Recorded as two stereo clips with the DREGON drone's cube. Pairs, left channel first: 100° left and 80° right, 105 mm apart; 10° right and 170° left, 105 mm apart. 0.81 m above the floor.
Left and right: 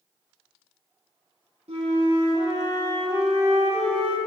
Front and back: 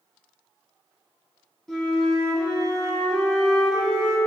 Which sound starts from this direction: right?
A flute, at 1.7 s.